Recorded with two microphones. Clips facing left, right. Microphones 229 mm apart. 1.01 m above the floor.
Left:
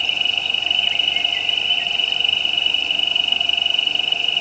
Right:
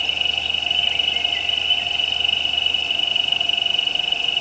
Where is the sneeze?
No sneeze in this recording.